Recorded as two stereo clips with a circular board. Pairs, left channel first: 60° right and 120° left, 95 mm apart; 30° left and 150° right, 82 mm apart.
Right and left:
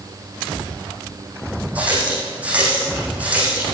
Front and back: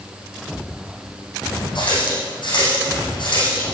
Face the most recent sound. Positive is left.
turn(degrees=45)